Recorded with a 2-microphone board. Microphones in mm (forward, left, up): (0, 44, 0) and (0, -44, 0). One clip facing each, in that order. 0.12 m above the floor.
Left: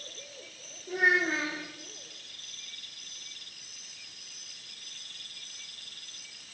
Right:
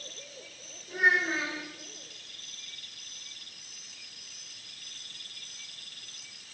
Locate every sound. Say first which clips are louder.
0.9 s a child speaking: even; 65° left (ahead or behind), 3.5 m